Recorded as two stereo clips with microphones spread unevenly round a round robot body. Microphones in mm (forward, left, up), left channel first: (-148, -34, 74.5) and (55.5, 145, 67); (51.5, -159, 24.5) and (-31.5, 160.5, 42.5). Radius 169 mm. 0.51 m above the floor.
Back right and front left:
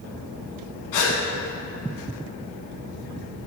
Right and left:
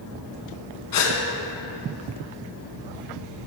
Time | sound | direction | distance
0.9 | a gasp | 110° right | 1.1 m